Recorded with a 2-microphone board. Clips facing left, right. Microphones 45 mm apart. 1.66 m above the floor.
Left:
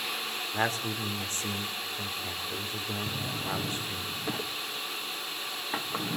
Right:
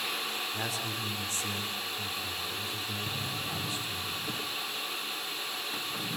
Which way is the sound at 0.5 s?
45° left (ahead or behind).